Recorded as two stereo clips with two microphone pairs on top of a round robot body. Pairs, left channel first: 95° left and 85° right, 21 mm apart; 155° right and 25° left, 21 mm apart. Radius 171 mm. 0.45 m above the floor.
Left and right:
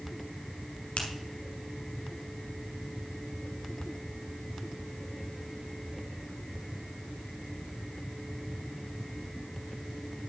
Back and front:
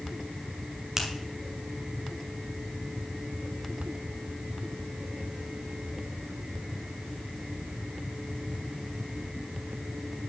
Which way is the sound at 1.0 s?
95° left.